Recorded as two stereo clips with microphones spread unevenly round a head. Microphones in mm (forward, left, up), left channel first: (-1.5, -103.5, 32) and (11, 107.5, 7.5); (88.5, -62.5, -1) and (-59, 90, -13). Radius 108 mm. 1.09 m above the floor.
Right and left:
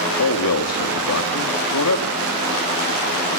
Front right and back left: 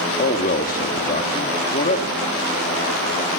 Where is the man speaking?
105° right, 2.5 m.